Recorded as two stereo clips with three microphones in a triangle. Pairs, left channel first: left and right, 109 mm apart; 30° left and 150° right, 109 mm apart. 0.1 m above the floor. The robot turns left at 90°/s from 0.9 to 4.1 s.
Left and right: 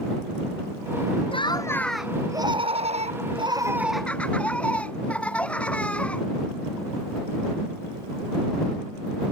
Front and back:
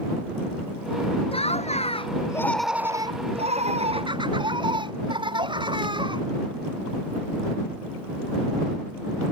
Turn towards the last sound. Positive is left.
turn(degrees=170)